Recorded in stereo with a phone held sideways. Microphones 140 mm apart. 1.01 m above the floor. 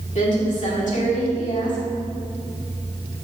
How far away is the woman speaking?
About 2.5 m.